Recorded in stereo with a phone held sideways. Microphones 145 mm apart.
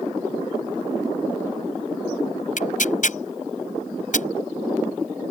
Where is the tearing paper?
60° left (ahead or behind).